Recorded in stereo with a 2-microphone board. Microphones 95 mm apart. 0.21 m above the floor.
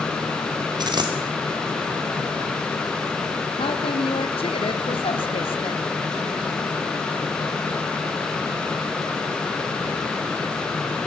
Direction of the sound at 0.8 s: 50° right (ahead or behind).